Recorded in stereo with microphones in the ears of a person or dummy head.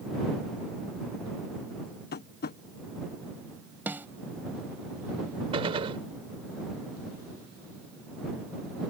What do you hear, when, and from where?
2.1 s tapping: 45° left (ahead or behind)
3.9 s a snare drum: 10° right (ahead or behind)
5.5 s a gunshot: 25° right (ahead or behind)